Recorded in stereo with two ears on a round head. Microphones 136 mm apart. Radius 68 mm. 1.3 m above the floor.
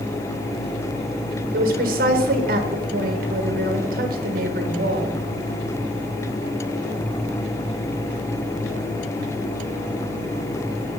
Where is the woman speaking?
60° right (ahead or behind), 1.1 m.